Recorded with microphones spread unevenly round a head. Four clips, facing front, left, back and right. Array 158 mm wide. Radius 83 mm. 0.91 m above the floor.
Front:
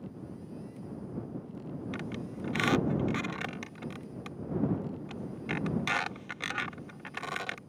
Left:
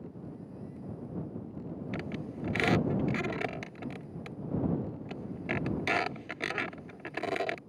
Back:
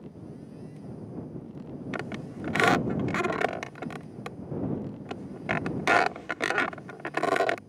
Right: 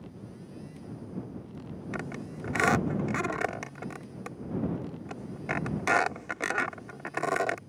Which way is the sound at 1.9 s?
175° right.